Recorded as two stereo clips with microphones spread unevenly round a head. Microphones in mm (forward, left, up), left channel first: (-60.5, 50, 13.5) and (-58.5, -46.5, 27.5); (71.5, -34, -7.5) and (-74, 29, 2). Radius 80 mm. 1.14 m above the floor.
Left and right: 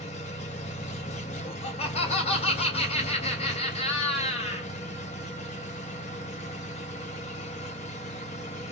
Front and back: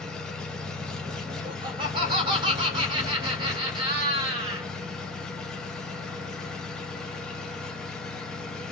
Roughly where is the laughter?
Left.